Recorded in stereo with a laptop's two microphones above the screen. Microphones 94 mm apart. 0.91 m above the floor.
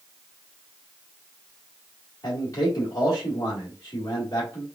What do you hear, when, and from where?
2.2 s a man speaking: 45° left (ahead or behind), 1.7 m